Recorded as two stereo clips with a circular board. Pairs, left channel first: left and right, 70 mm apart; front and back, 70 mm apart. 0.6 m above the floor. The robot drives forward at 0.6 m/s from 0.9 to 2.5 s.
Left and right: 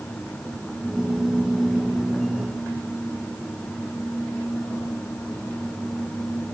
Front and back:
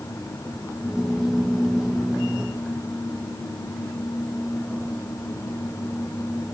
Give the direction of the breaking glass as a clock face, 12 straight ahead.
I don't hear breaking glass.